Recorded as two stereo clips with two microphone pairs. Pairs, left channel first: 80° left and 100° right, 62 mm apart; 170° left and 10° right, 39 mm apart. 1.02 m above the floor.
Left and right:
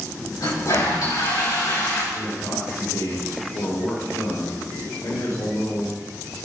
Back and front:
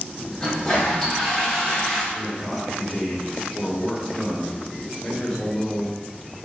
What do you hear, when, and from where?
0.4 s a toilet flushing: 90° left, 4 m
2.1 s a man speaking: 100° left, 3.5 m